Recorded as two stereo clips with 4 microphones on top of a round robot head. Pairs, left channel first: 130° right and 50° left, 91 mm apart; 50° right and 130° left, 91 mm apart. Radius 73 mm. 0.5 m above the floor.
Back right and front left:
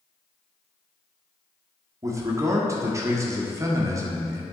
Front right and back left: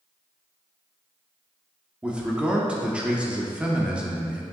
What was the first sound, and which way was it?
A man speaking, 60° left.